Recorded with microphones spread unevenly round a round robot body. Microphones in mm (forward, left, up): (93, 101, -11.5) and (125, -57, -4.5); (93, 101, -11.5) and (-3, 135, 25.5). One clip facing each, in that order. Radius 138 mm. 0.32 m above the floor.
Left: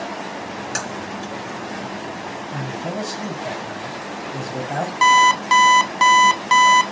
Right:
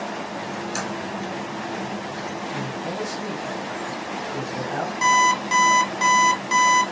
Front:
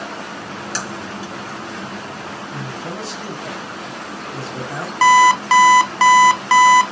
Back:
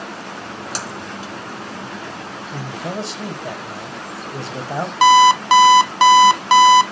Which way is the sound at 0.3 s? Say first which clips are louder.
Even, front 1 dB; 125° left.